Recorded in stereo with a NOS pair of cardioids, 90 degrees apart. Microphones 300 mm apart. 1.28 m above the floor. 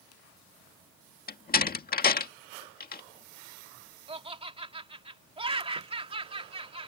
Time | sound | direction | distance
1.3 | a door slam | 30° left | ?
4.1 | laughter | 20° right | ?